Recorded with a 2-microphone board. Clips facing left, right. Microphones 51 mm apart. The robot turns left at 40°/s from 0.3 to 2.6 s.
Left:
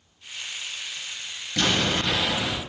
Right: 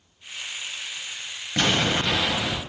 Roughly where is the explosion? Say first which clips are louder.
Right 1 dB; right.